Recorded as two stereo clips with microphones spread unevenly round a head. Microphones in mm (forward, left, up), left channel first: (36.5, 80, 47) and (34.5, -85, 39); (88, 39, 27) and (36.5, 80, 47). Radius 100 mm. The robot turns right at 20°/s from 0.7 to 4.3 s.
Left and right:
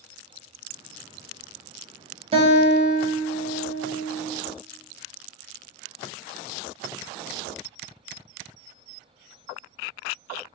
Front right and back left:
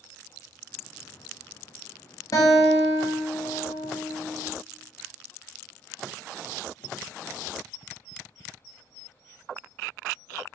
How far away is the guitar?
About 1.0 m.